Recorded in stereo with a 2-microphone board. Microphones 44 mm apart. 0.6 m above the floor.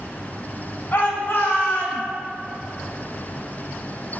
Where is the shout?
60° left (ahead or behind), 3.5 m; by 2.0 s 65° left (ahead or behind), 2.5 m.